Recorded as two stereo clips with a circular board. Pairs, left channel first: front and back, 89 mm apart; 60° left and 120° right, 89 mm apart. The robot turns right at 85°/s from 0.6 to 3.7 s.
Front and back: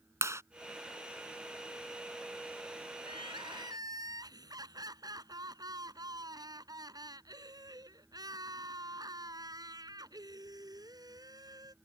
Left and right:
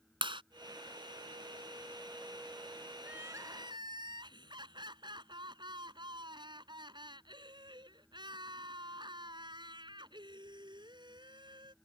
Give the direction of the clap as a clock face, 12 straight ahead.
4 o'clock.